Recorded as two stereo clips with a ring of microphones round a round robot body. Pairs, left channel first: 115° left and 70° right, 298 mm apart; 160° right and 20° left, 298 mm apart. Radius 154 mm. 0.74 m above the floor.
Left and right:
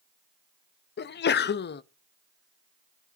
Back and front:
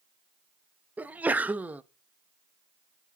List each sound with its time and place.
1.0 s a sneeze: 105° left, 0.5 m